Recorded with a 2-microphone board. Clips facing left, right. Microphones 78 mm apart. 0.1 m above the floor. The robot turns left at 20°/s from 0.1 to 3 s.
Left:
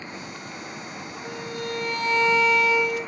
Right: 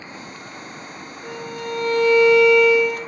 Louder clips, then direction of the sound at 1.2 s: Right 3 dB; 80° right.